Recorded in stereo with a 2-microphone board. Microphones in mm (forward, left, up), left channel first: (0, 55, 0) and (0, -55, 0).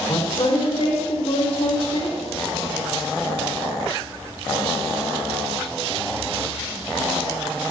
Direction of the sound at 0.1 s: 65° left (ahead or behind).